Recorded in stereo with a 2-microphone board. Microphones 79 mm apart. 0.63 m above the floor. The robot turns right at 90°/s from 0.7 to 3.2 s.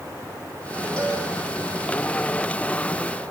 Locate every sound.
1.0 s a cowbell: 15° left (ahead or behind), 9 m; by 1.2 s 40° left (ahead or behind), 9 m